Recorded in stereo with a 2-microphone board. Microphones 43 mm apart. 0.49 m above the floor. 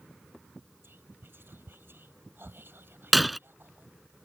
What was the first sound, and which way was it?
Whispering, 55° right (ahead or behind).